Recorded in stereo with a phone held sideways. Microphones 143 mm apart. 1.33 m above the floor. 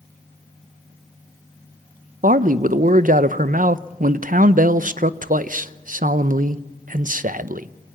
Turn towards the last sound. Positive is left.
turn(degrees=-70)  # may be behind; listen again after turning